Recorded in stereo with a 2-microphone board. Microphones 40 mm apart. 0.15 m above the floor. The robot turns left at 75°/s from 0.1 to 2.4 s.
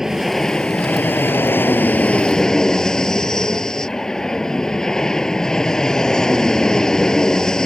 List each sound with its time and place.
0.0 s an aircraft: 170° right; by 7.7 s 15° left